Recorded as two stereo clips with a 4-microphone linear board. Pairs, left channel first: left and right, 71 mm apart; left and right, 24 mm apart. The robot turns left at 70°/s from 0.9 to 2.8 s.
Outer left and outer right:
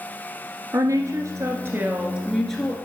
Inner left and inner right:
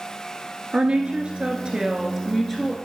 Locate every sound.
0.7 s a woman speaking: 75° right, 1.5 m; by 2.8 s 155° left, 1.5 m